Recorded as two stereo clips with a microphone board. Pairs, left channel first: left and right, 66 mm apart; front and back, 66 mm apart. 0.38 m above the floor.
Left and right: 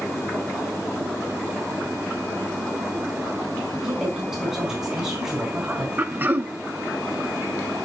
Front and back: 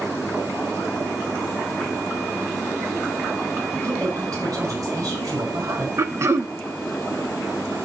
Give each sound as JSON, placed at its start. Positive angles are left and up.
{"t": 3.7, "sound": "a woman speaking", "azimuth_deg": -175, "distance_m": 4.5}
{"t": 6.0, "sound": "throat clearing", "azimuth_deg": -145, "distance_m": 0.6}